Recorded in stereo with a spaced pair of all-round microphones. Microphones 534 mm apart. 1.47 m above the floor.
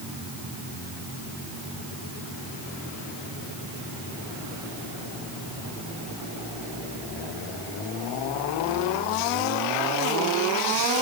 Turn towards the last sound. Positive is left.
No sound to turn to.